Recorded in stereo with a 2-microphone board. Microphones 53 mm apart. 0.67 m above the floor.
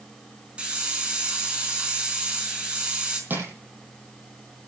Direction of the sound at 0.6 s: 25° right (ahead or behind).